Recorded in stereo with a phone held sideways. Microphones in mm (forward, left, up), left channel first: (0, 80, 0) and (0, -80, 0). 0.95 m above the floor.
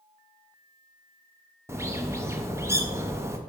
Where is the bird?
15° right (ahead or behind), 0.6 m.